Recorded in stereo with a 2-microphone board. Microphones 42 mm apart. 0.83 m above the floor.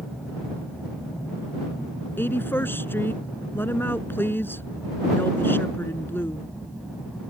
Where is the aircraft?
5° left (ahead or behind); by 7.3 s 5° right (ahead or behind).